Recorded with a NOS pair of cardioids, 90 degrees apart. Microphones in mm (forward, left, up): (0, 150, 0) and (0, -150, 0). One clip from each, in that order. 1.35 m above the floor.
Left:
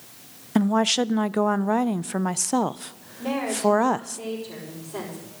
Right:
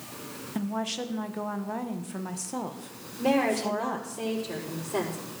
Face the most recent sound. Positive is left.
turn(degrees=-35)